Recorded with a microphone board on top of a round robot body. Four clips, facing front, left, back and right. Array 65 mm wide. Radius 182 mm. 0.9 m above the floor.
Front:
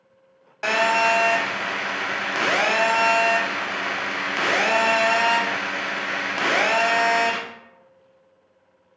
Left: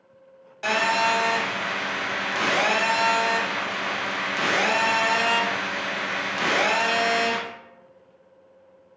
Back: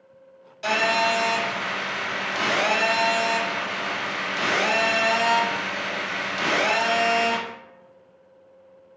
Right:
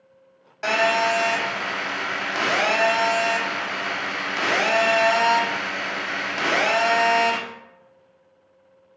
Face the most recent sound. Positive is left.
turn(degrees=-20)